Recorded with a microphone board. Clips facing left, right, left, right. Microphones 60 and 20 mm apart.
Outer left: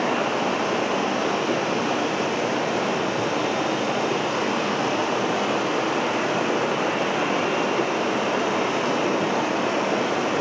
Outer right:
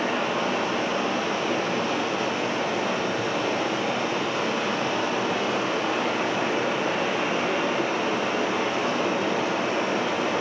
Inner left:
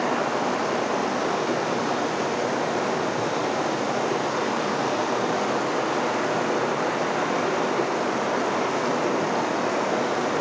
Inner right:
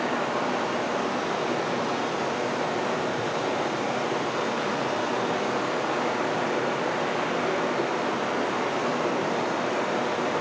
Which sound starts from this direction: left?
Running water, at 0.0 s.